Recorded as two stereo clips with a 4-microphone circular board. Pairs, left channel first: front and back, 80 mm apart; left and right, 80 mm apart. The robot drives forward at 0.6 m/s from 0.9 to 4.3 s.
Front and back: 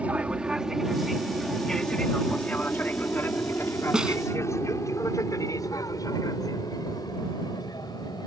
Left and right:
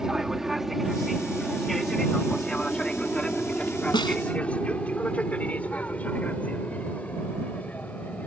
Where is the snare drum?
100° left.